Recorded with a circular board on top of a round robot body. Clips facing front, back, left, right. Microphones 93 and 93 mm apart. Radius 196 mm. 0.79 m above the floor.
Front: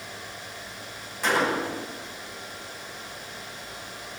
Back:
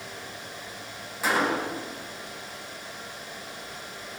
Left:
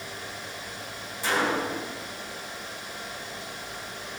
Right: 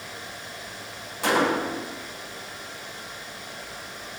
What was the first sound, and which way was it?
A gunshot, 95° right.